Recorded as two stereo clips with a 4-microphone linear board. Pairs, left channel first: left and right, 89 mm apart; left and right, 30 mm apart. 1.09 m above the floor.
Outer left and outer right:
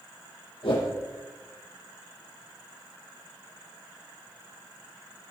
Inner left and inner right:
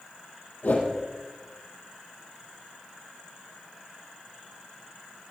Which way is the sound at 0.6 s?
80° left.